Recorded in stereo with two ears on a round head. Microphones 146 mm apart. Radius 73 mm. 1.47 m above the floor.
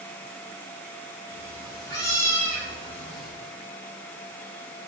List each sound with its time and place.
1.3 s a cat meowing: 35° left (ahead or behind), 5 m; by 3.3 s centre (ahead or behind), 4 m